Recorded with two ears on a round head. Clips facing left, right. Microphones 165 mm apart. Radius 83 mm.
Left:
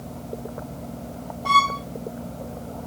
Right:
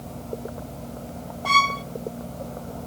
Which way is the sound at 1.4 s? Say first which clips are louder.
Left 2 dB; 15° right (ahead or behind).